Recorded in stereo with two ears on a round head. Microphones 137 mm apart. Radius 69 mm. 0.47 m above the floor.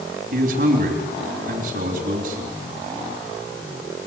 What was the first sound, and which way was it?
A man speaking, 60° right (ahead or behind).